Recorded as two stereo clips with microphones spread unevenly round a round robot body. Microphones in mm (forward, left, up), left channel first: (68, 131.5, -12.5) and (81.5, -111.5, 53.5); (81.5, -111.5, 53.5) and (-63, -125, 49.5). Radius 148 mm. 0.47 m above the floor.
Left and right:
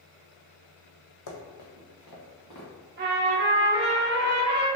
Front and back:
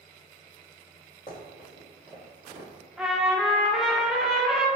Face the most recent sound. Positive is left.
turn(degrees=-95)